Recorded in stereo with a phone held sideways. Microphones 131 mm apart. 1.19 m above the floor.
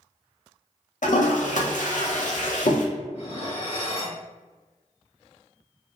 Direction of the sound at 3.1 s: 50° left (ahead or behind).